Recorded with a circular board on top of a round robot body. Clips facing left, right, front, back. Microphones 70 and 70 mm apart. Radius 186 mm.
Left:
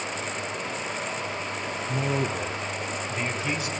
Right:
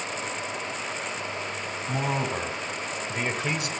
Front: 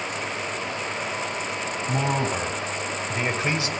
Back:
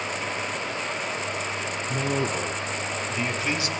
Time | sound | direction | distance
1.9 | a man speaking | 45° right | 4 m